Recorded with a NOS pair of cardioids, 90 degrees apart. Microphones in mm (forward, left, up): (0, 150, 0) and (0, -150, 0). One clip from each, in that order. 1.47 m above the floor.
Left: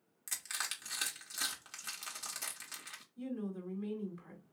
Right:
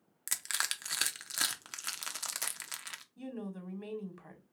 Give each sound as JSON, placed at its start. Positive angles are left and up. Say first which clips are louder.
{"t": 0.3, "sound": "crushing", "louder": "right 5 dB", "azimuth_deg": -40, "distance_m": 0.6}
{"t": 3.2, "sound": "a woman speaking", "louder": "left 1 dB", "azimuth_deg": -50, "distance_m": 1.5}